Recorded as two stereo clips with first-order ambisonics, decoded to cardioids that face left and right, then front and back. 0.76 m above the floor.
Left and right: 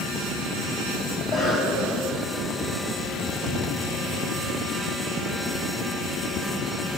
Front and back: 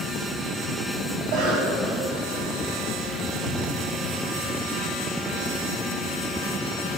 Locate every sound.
1.2 s a cough: 145° left, 4 m
3.4 s an explosion: 140° left, 3.5 m